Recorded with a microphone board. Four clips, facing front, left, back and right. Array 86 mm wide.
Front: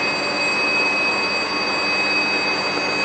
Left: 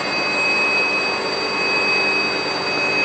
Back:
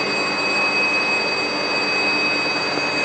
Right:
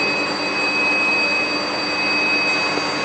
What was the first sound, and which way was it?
Only background noise.